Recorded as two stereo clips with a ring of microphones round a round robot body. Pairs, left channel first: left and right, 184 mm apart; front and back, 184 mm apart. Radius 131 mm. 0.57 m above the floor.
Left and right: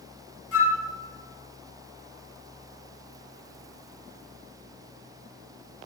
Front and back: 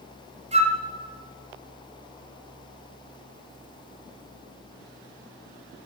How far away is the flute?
About 2.5 m.